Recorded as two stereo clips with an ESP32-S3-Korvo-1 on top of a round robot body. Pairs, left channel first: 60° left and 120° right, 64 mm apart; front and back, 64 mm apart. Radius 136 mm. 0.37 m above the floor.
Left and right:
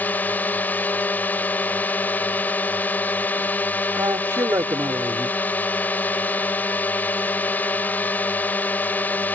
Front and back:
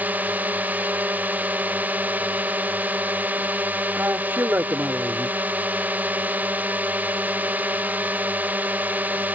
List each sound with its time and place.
0.0 s a drone: 120° left
4.0 s a man speaking: 130° right